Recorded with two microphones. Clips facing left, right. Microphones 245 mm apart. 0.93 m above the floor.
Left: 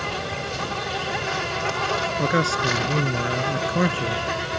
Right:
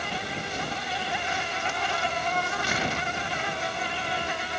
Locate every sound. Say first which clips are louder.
0.0 s an insect: left 5 dB; 75° left (ahead or behind)
2.2 s a man speaking: left 9 dB; 85° left